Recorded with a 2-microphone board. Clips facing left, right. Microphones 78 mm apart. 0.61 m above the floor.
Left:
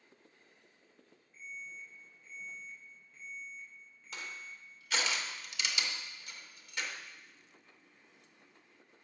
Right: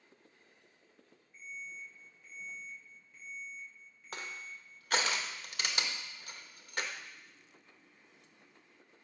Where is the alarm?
10° right (ahead or behind), 3.5 m.